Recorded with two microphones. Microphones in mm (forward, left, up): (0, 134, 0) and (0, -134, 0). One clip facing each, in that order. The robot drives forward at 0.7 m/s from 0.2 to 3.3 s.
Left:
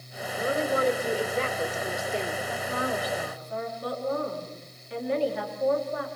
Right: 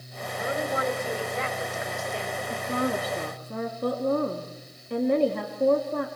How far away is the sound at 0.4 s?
About 4 m.